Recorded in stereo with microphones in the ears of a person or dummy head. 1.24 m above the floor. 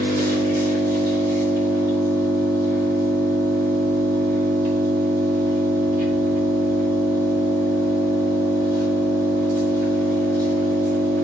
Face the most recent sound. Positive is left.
turn(degrees=-55)  # may be behind; listen again after turning